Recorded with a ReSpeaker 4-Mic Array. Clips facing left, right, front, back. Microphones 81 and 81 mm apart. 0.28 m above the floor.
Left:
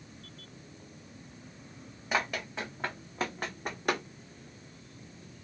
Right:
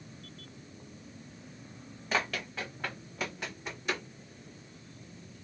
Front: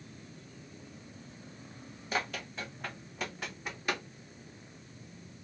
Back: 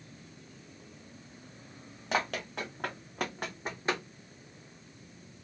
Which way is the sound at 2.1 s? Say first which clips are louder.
Left 1 dB, back 4 dB; 165° left.